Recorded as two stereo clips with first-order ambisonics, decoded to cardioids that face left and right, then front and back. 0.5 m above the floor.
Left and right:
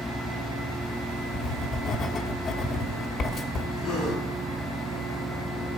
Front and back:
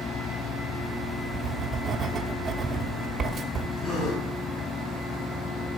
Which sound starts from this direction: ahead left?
A gasp, at 3.8 s.